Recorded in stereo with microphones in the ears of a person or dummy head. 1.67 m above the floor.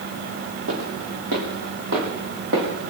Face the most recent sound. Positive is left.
turn(degrees=-55)  # may be behind; listen again after turning